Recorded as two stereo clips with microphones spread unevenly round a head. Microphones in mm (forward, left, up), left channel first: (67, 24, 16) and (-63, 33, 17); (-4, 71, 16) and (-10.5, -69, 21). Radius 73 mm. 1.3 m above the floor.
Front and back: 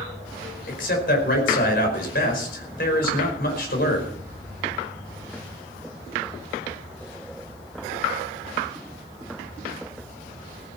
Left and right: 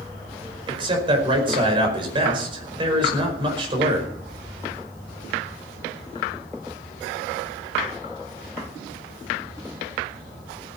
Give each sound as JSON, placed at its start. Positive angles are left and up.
{"t": 0.7, "sound": "a man speaking", "azimuth_deg": -35, "distance_m": 5.0}